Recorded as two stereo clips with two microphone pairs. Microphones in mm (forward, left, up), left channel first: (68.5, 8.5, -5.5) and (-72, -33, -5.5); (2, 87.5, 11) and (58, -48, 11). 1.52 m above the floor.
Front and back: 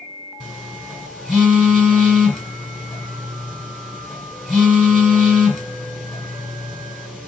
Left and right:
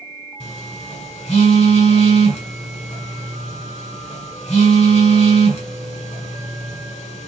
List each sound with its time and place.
0.4 s a phone buzzing: 105° left, 1.7 m